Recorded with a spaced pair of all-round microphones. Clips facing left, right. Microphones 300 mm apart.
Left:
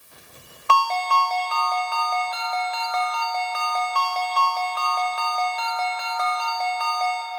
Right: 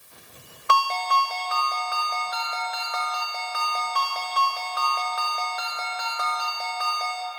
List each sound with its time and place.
0.7 s a ringtone: 15° right (ahead or behind), 0.8 m